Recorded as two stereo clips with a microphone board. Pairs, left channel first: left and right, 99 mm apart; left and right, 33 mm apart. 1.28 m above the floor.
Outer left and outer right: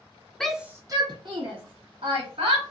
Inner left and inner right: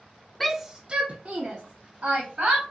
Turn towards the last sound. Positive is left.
turn(degrees=-85)